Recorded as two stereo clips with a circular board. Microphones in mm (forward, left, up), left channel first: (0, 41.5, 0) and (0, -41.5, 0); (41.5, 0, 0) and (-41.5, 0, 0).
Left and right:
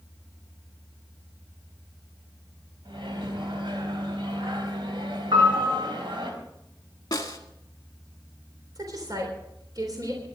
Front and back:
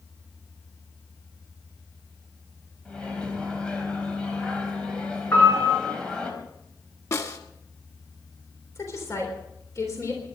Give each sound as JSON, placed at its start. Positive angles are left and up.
{"t": 2.9, "sound": "a microwave", "azimuth_deg": -80, "distance_m": 4.0}
{"t": 5.3, "sound": "a piano", "azimuth_deg": -65, "distance_m": 6.5}
{"t": 7.1, "sound": "a snare drum", "azimuth_deg": 45, "distance_m": 1.8}
{"t": 8.8, "sound": "a woman speaking", "azimuth_deg": -50, "distance_m": 3.5}